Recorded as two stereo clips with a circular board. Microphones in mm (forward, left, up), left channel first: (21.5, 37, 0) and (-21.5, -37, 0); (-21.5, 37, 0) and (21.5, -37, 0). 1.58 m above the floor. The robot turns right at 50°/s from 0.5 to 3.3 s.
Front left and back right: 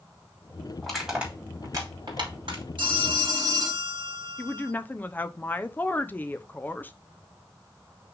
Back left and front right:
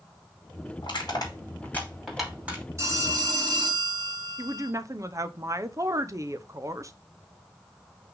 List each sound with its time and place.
0.8 s crushing: 145° left, 3 m; by 2.6 s 125° right, 3 m
2.8 s a phone ringing: 115° right, 1.9 m; by 4.7 s 90° right, 1.9 m
4.4 s a woman speaking: 10° right, 0.6 m